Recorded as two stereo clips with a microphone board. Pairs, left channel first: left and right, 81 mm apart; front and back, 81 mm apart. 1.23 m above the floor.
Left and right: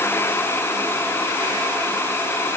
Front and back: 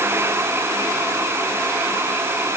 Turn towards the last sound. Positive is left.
No sound to turn to.